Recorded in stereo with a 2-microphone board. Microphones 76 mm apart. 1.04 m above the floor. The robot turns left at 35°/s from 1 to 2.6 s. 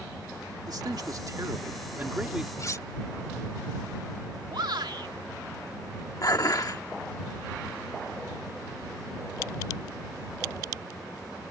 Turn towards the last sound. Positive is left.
turn(degrees=50)  # may be behind; listen again after turning